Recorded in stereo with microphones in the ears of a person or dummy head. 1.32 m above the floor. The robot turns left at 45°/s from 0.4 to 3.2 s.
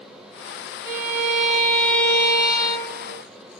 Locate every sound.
0.8 s a violin: 10° right (ahead or behind), 0.5 m; by 3.2 s 25° left (ahead or behind), 0.5 m